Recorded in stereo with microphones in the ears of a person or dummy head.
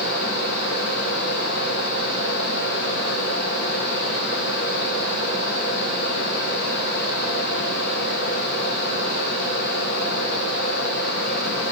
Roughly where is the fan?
Left.